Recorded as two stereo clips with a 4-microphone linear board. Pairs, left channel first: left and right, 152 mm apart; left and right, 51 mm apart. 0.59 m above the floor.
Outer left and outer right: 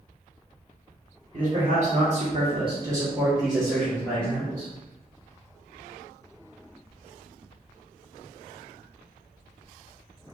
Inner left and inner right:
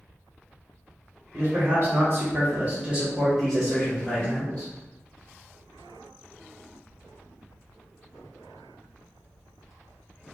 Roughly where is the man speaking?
Right.